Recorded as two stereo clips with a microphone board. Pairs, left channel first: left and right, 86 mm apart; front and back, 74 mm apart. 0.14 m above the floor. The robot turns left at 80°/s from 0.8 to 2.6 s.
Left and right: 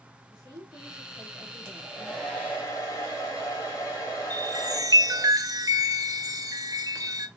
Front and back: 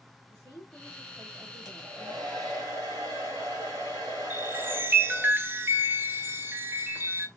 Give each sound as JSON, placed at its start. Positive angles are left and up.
{"t": 0.3, "sound": "a woman speaking", "azimuth_deg": -65, "distance_m": 3.5}
{"t": 1.6, "sound": "a hair dryer", "azimuth_deg": -140, "distance_m": 3.0}
{"t": 4.3, "sound": "a chime", "azimuth_deg": -125, "distance_m": 1.5}